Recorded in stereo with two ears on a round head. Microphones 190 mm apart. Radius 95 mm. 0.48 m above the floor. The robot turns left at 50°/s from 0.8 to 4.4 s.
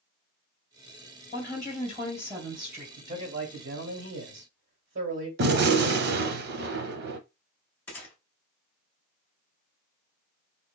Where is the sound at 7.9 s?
10° left (ahead or behind), 1.5 m.